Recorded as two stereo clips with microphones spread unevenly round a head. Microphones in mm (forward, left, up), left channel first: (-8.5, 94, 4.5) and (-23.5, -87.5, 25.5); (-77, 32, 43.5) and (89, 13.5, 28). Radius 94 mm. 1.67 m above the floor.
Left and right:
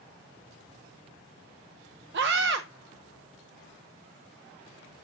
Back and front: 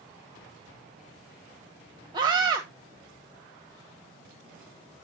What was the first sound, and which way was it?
A scream, 75° right.